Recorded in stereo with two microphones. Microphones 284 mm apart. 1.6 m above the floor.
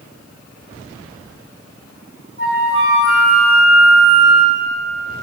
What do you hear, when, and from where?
2.4 s a flute: 45° right (ahead or behind), 4 m